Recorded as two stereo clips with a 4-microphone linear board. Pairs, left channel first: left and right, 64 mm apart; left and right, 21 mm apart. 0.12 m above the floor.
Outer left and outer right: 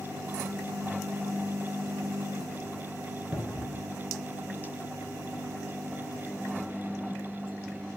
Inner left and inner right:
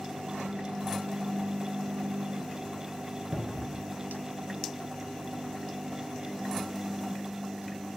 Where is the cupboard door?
15° right (ahead or behind), 0.7 m.